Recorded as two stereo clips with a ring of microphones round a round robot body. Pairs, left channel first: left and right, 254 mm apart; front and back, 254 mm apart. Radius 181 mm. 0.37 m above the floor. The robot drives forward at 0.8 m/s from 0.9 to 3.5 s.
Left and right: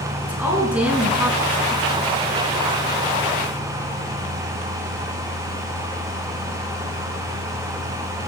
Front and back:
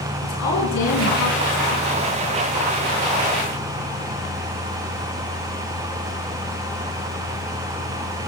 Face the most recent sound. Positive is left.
turn(degrees=-10)